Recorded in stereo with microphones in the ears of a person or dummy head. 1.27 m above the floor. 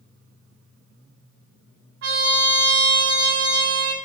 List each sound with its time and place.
2.0 s a trumpet: 60° right (ahead or behind), 1.2 m